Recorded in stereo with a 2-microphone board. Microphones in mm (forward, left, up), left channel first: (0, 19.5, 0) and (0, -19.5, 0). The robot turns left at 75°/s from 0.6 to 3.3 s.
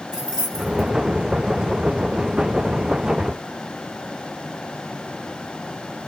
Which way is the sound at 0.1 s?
10° right (ahead or behind).